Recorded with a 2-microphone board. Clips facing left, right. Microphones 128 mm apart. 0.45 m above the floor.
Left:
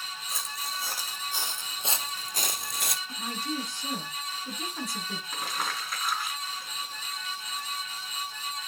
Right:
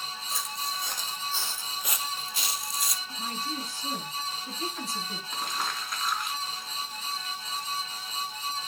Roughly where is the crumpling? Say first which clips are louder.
Right 1 dB; centre.